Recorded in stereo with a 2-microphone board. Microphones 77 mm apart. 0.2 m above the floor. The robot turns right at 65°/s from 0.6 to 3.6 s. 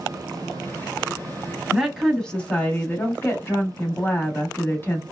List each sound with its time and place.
1.7 s a woman speaking: 5° right (ahead or behind), 1.1 m; by 5.0 s 30° left (ahead or behind), 1.1 m